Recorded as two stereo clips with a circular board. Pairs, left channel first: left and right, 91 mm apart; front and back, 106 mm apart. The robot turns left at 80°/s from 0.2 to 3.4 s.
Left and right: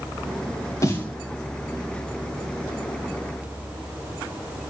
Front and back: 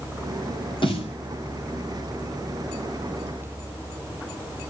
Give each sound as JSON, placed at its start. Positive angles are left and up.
{"t": 0.8, "sound": "a snare drum", "azimuth_deg": 35, "distance_m": 3.5}